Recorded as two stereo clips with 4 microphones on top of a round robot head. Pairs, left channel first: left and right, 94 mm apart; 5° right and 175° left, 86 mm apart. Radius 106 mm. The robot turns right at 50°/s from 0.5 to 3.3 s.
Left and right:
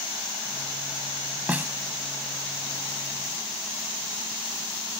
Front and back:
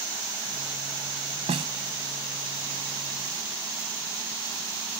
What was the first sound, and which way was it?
A snare drum, 165° right.